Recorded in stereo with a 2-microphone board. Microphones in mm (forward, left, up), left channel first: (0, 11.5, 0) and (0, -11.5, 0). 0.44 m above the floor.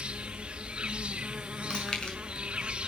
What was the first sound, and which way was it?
An insect, 65° right (ahead or behind).